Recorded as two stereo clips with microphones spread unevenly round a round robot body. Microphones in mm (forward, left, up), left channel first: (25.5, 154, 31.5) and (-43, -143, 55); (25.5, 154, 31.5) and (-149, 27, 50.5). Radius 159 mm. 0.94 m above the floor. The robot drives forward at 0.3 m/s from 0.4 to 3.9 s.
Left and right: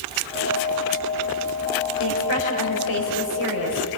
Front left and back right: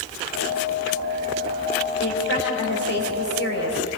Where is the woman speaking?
65° left, 5.5 m; by 3.8 s 70° left, 5 m.